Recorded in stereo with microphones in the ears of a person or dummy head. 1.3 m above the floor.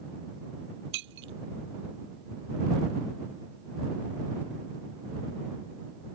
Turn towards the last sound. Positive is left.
turn(degrees=-65)  # may be behind; listen again after turning